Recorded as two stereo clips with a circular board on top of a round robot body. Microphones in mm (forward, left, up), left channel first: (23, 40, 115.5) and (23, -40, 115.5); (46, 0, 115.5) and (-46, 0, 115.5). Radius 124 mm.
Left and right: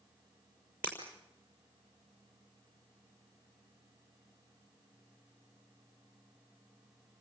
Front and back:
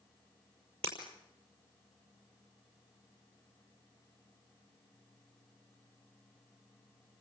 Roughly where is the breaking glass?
Behind.